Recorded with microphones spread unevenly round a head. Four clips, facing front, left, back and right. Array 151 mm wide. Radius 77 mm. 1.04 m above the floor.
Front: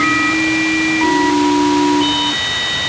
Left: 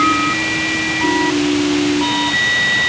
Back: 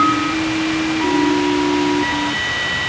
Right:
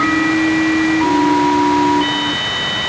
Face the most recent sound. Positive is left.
No sound to turn to.